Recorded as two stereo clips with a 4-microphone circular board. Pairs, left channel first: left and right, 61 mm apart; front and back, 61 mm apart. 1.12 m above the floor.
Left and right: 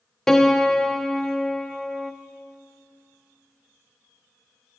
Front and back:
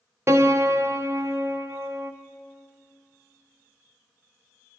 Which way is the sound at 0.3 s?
170° left.